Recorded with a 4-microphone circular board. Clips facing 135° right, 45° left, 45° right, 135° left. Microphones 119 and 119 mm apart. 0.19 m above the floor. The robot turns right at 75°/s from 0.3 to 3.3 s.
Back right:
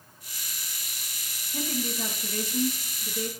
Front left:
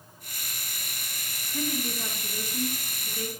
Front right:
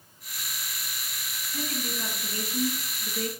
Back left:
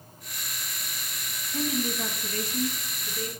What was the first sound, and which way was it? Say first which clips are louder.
A woman speaking: even, back left 5 dB; 175° right.